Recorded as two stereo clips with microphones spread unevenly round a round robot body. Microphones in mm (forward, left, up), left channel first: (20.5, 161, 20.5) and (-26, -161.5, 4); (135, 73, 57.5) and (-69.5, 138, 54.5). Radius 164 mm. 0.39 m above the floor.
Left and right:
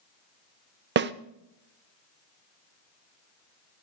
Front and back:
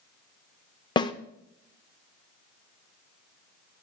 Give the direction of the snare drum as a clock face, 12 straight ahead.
3 o'clock.